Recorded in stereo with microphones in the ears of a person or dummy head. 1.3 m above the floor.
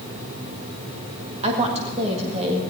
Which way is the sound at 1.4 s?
30° right (ahead or behind).